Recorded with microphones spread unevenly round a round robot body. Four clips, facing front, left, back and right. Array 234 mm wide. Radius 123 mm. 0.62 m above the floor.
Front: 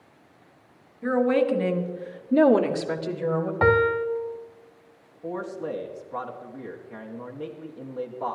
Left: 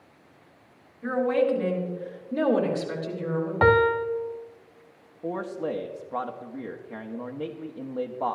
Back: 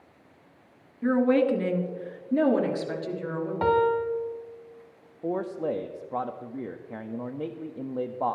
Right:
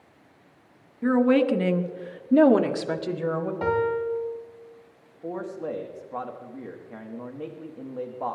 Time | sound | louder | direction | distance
1.0 | a woman speaking | right 3 dB, even | 115° right | 1.5 m
3.6 | a piano | left 6 dB, front 2 dB | 50° left | 0.9 m
5.2 | a man speaking | left 2 dB, back 3 dB | 150° left | 1.0 m